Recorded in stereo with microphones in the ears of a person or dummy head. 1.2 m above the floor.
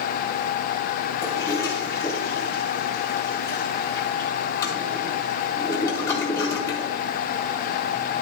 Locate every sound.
1.2 s a toilet flushing: 15° left (ahead or behind), 2.5 m